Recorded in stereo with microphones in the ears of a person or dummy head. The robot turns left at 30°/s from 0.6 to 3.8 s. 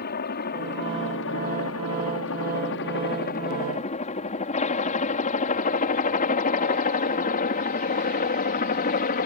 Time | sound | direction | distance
0.0 | a helicopter | 50° left (ahead or behind) | ?